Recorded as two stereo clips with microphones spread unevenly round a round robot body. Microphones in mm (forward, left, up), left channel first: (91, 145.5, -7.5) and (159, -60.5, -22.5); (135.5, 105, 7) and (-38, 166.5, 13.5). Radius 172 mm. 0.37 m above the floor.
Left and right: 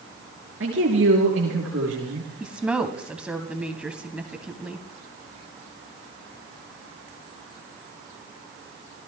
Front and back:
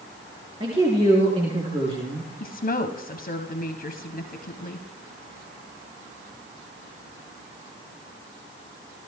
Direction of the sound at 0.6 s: 125° right.